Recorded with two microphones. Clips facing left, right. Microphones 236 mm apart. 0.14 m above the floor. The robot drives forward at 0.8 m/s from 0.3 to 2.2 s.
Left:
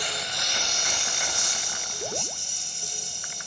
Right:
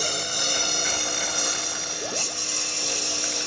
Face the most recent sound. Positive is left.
turn(degrees=-80)